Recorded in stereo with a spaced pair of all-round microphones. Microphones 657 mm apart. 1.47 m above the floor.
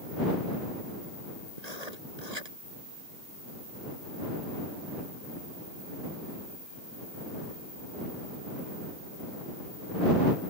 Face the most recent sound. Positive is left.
turn(degrees=-75)  # may be behind; listen again after turning